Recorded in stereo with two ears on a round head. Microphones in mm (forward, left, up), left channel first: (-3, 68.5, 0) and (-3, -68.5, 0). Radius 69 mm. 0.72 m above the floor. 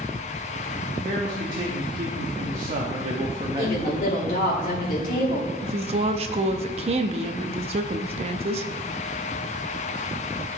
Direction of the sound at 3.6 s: 60° left (ahead or behind).